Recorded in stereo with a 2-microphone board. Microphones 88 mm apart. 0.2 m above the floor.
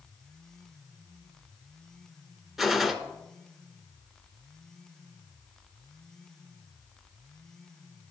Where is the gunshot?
5° right (ahead or behind), 0.5 m.